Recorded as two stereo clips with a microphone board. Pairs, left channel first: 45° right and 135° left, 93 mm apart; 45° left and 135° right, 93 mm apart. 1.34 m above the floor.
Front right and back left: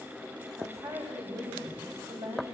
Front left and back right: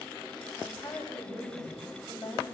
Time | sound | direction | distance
0.6 | a woman speaking | 125° left | 9.5 m